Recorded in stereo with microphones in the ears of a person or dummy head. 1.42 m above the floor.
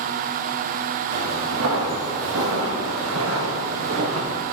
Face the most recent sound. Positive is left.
turn(degrees=-65)  # may be behind; listen again after turning